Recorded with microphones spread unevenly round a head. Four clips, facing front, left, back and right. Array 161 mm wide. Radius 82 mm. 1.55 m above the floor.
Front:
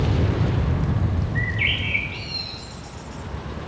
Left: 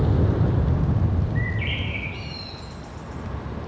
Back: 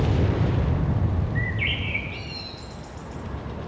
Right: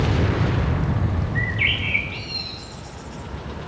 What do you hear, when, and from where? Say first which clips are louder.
1.4 s a bird: right 3 dB, front 2 dB; 90° right, 5.5 m